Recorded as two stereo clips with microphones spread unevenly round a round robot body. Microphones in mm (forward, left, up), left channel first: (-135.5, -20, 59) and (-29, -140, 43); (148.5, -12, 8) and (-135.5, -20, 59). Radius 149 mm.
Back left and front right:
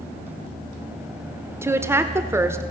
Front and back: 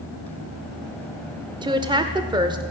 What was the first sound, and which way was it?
A woman speaking, 100° right.